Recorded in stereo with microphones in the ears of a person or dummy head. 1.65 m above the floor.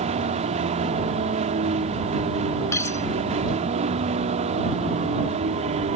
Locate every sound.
0.0 s a vehicle: 35° right (ahead or behind)
2.7 s cutlery clinking: 15° left (ahead or behind)